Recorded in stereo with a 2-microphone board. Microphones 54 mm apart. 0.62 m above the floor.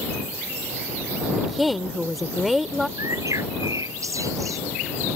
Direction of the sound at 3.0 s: 80° right.